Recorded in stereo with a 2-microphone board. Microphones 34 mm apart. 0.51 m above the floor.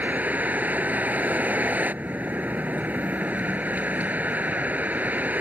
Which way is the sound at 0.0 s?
50° right (ahead or behind).